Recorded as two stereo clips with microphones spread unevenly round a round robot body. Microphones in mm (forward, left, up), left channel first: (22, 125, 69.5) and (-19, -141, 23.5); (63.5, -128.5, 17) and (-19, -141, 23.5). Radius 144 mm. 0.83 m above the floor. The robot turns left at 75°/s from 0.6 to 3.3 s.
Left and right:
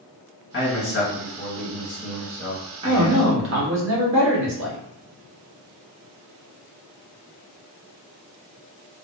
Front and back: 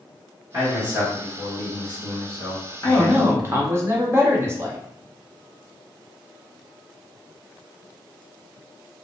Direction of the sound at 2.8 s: 80° right.